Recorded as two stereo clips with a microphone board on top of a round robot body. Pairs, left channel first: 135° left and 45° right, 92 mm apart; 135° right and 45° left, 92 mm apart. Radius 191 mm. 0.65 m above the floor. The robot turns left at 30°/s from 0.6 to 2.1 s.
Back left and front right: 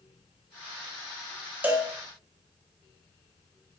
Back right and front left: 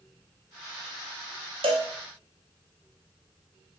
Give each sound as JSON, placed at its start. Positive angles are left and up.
{"t": 1.6, "sound": "a cowbell", "azimuth_deg": 25, "distance_m": 0.8}